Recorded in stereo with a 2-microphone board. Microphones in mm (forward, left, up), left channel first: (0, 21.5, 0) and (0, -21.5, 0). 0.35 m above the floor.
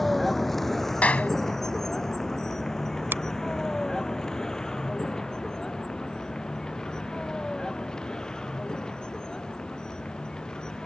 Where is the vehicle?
5° left (ahead or behind); by 10.9 s 20° left (ahead or behind).